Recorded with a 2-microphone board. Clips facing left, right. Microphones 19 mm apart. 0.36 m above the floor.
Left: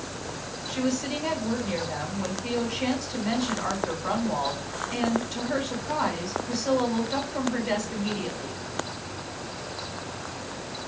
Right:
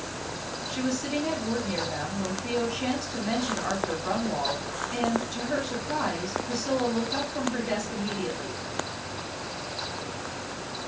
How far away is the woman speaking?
About 3 m.